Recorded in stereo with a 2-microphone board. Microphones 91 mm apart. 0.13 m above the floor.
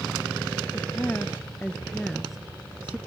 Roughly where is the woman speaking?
Left.